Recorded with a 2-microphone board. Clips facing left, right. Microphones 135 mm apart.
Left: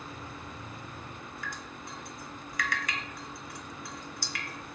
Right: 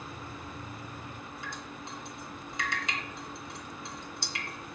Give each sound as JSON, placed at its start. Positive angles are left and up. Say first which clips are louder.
{"t": 1.4, "sound": "dripping", "louder": "right 1 dB", "side_deg": -25, "distance_m": 3.5}